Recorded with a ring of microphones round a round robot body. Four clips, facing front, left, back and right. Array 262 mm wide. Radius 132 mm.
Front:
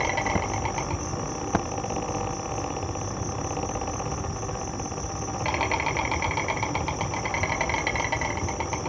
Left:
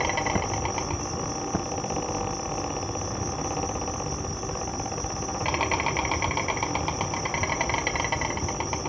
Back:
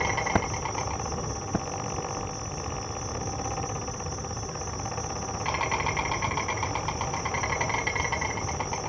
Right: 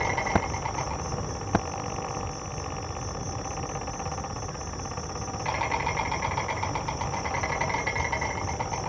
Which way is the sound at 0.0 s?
50° left.